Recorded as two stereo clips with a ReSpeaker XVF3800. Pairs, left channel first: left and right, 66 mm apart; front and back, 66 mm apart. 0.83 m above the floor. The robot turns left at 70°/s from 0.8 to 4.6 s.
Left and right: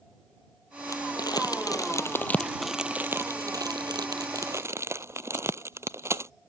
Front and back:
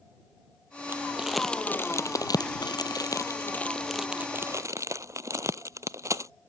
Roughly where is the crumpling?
Behind left.